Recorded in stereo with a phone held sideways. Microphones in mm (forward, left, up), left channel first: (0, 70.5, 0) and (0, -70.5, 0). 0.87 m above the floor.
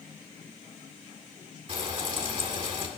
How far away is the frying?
About 2.0 m.